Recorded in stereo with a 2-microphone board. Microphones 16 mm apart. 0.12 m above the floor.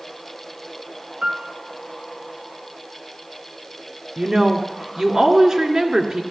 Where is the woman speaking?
35° right (ahead or behind), 1.8 m.